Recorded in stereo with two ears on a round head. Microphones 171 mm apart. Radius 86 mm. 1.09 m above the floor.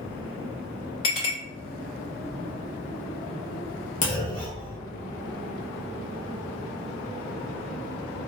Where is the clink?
80° left, 1.4 m.